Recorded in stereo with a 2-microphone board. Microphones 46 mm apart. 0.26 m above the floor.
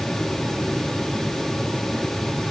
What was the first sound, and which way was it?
Only background noise.